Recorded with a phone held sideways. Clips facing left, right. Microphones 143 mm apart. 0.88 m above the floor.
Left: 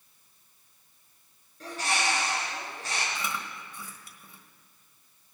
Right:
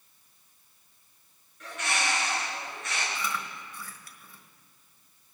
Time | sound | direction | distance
1.6 | a bird | 35° left (ahead or behind) | 4.5 m
3.1 | chewing | 20° left (ahead or behind) | 1.4 m